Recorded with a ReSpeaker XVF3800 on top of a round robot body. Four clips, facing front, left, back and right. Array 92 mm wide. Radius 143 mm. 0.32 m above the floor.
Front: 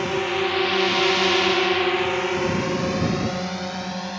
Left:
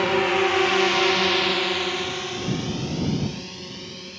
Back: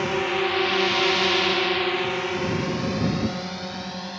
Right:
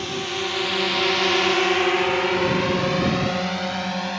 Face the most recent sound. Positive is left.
turn(degrees=-85)